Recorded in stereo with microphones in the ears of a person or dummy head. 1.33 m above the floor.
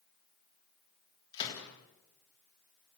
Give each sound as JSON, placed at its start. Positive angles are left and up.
{"t": 1.3, "sound": "a gunshot", "side_deg": 25, "distance_m": 3.5}